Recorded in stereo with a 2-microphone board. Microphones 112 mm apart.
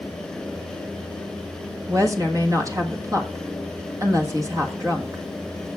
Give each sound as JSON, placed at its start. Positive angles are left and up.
{"t": 1.9, "sound": "a woman speaking", "side_deg": -30, "distance_m": 1.5}